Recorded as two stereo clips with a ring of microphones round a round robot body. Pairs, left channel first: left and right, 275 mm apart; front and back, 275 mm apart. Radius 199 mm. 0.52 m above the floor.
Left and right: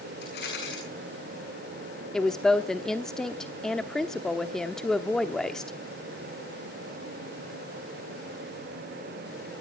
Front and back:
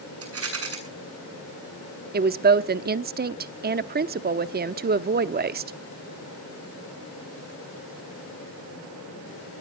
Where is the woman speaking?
175° left, 0.9 m.